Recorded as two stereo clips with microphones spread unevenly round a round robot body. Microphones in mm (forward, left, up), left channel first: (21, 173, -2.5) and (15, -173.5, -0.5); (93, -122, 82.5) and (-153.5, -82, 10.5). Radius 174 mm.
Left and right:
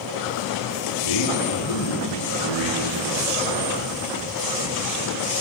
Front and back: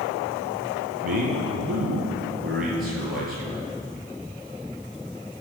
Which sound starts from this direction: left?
A man speaking, at 1.0 s.